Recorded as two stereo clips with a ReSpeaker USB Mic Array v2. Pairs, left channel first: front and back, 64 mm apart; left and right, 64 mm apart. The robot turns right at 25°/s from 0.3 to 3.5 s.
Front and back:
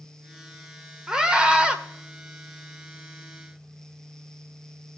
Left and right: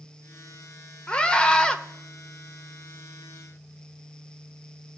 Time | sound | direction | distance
1.1 | a scream | 130° left | 0.9 m